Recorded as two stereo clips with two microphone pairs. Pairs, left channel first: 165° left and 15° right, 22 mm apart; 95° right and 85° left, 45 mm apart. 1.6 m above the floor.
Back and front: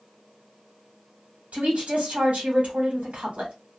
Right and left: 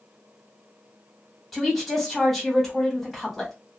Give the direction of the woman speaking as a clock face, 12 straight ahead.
12 o'clock.